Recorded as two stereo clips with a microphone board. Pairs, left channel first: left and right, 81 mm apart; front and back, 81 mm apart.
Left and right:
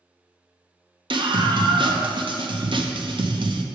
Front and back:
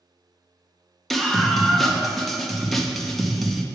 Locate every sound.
1.1 s a scream: 90° right, 0.8 m